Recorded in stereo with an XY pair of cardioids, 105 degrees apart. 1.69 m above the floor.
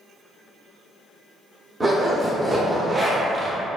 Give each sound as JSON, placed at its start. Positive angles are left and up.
{"t": 1.8, "sound": "a zipper", "azimuth_deg": -15, "distance_m": 0.6}